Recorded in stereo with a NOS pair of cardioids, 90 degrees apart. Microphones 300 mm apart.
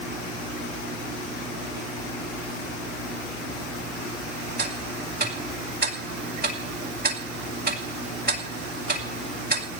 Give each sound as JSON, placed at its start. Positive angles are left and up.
{"t": 4.6, "sound": "ticking", "azimuth_deg": -30, "distance_m": 5.0}